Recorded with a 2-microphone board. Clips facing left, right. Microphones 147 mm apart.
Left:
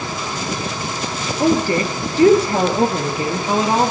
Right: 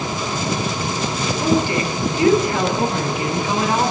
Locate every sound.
1.4 s a woman speaking: 40° left (ahead or behind), 5.5 m; by 3.9 s 30° left (ahead or behind), 6 m